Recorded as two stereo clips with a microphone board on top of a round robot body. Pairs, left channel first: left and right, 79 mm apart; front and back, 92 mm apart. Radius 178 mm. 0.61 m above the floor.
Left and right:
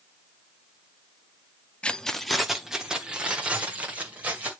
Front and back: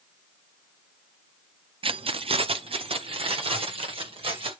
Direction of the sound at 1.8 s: 165° left.